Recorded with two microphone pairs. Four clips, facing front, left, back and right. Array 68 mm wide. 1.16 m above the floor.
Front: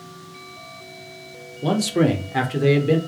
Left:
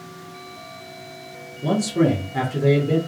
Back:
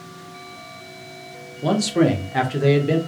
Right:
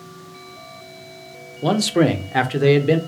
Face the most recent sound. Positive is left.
turn(degrees=-95)